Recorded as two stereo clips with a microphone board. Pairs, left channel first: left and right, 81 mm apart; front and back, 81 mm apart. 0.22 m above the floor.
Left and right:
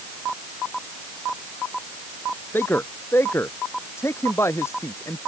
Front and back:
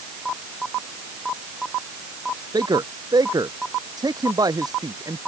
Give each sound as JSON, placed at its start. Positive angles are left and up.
{"t": 2.5, "sound": "a man speaking", "azimuth_deg": 155}